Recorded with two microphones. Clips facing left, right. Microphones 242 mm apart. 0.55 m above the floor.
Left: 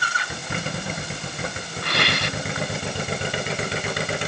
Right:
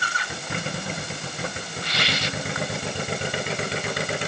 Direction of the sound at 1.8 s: 60° left (ahead or behind).